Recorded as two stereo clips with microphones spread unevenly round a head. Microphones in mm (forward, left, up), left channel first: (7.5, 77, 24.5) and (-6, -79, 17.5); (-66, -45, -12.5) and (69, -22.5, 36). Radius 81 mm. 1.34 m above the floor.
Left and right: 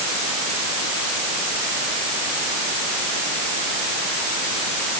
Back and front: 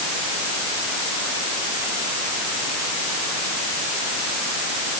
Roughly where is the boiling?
I don't hear boiling.